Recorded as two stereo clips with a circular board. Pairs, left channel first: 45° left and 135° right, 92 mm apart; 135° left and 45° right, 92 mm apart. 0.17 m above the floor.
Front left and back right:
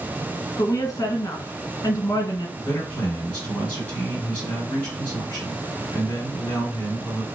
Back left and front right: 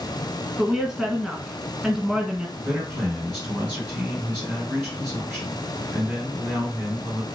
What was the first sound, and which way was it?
A woman speaking, 35° left.